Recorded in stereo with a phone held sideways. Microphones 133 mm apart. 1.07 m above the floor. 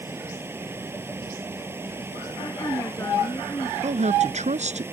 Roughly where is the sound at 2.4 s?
Left.